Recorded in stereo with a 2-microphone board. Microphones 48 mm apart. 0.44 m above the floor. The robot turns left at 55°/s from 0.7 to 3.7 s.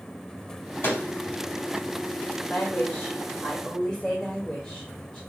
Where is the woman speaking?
85° left, 1.8 m; by 5.2 s 20° left, 1.8 m.